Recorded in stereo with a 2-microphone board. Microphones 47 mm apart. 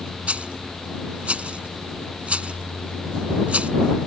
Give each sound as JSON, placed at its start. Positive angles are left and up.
{"t": 0.3, "sound": "a rattle", "side_deg": -30}